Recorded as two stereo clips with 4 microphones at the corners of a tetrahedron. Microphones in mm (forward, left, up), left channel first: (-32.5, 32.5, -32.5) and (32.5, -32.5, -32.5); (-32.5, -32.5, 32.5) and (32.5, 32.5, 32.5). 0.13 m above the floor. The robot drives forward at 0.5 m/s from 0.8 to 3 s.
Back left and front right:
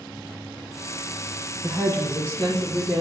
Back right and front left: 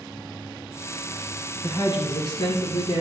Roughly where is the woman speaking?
Behind.